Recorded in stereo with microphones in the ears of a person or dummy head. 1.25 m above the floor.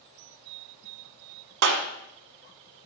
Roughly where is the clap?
Right.